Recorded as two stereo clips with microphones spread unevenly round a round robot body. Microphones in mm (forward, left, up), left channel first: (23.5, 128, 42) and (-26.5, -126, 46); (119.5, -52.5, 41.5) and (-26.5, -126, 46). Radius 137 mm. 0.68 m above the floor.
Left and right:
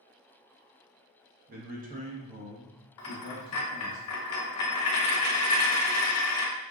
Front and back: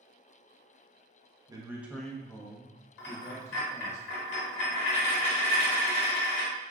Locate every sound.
1.5 s a man speaking: 100° right, 0.8 m; by 4.0 s 15° right, 1.7 m
3.0 s a dropped coin: 45° left, 0.8 m